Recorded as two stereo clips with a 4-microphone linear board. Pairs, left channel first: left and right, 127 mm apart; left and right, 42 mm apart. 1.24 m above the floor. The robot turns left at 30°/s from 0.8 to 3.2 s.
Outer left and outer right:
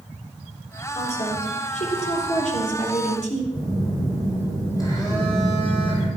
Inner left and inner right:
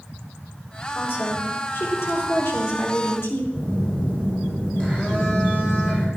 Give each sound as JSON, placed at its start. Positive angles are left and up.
{"t": 0.9, "sound": "a woman speaking", "azimuth_deg": 130, "distance_m": 4.0}
{"t": 3.5, "sound": "a phone buzzing", "side_deg": 25, "distance_m": 6.0}